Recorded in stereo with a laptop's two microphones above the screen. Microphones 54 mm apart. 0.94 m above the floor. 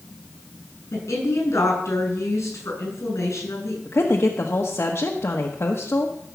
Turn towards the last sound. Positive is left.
turn(degrees=50)  # may be behind; listen again after turning